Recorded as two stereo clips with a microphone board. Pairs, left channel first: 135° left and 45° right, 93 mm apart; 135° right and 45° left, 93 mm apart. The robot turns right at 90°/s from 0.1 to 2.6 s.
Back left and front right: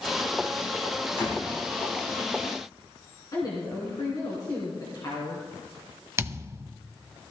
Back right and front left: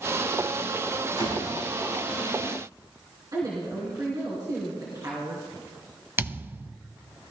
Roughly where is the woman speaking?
Left.